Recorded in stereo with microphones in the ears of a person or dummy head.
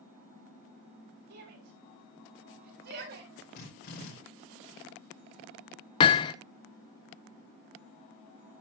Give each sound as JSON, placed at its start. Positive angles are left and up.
{"t": 1.3, "sound": "a shout", "side_deg": -55, "distance_m": 6.5}
{"t": 3.5, "sound": "a drill", "side_deg": 55, "distance_m": 5.0}
{"t": 6.0, "sound": "hammering", "side_deg": 25, "distance_m": 0.7}